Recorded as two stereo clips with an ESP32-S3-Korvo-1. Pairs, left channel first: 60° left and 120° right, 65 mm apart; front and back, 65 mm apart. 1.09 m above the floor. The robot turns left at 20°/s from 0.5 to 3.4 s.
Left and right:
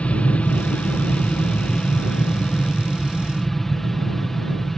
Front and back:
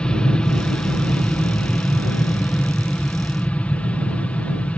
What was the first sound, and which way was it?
An aircraft, 40° left.